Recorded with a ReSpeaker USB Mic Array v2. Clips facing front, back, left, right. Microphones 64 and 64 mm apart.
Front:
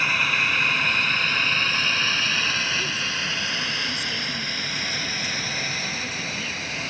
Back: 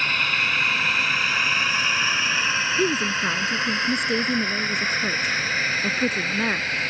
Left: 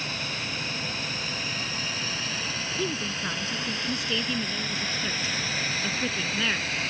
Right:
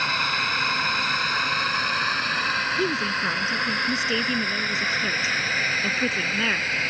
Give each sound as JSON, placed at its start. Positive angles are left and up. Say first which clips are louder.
{"t": 0.0, "sound": "a drone", "louder": "front 1 dB, right 9 dB", "azimuth_deg": -85}
{"t": 2.8, "sound": "a woman speaking", "louder": "back 6 dB, right 6 dB", "azimuth_deg": -155}